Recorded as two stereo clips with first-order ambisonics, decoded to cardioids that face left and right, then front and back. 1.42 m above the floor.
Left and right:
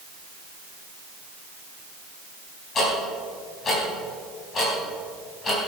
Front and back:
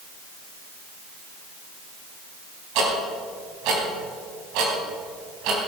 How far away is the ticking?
About 3.5 m.